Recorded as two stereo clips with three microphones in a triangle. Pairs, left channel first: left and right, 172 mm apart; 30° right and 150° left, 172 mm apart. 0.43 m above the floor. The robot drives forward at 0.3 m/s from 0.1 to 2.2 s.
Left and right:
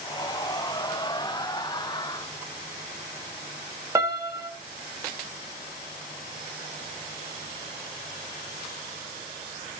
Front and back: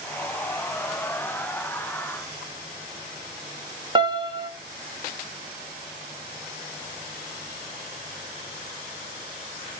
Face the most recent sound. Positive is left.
turn(degrees=-155)